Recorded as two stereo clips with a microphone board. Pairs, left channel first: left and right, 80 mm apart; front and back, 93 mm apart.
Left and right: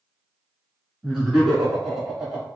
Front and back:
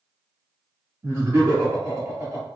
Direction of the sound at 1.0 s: 170° right.